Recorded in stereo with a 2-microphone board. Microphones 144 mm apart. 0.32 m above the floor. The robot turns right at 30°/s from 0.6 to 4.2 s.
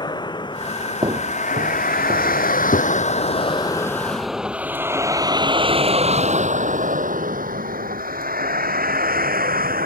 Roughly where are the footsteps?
Right.